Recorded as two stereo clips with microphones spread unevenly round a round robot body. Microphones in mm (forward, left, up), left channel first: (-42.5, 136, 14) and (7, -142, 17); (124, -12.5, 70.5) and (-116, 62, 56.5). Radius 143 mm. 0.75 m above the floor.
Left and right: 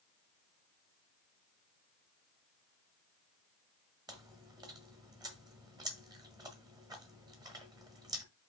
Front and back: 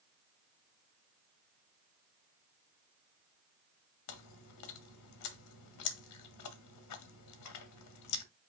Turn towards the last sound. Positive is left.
turn(degrees=-5)